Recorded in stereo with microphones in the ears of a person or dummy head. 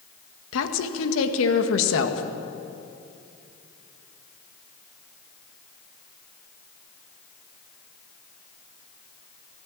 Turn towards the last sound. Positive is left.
turn(degrees=75)  # may be behind; listen again after turning